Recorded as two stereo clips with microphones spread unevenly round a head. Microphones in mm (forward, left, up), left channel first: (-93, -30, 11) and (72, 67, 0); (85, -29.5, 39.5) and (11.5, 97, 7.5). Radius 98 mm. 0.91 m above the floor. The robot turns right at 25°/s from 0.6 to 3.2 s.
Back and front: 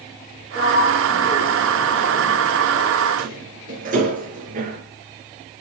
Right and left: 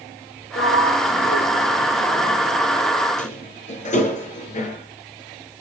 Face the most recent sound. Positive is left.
turn(degrees=-25)